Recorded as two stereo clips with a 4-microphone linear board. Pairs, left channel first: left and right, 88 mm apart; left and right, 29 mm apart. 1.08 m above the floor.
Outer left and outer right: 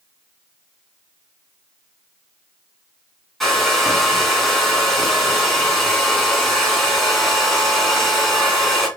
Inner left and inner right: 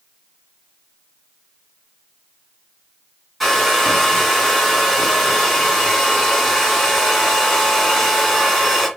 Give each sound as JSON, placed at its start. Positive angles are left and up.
{"t": 3.4, "sound": "a hair dryer", "side_deg": 0, "distance_m": 2.5}